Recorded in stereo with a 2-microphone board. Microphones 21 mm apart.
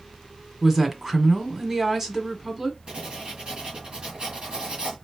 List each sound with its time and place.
0.6 s a woman speaking: 20° right (ahead or behind), 1.4 m
2.9 s writing: 55° right (ahead or behind), 3 m